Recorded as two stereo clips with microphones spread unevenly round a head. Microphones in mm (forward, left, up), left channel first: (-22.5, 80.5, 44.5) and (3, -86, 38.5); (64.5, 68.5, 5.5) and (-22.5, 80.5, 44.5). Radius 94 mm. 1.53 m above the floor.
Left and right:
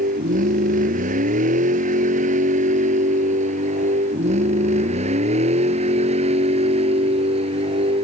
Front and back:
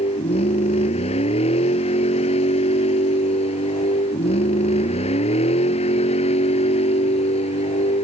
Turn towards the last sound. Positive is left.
turn(degrees=-20)